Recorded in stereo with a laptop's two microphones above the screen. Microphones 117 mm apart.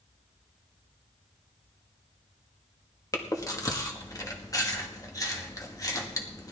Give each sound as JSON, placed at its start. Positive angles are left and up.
{"t": 3.1, "sound": "chewing", "side_deg": 30, "distance_m": 1.5}